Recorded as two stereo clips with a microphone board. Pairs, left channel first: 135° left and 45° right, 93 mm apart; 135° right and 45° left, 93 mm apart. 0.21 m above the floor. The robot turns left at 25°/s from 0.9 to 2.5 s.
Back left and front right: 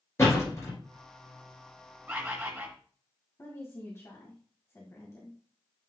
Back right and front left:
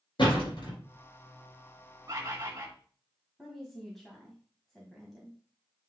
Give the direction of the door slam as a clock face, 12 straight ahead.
6 o'clock.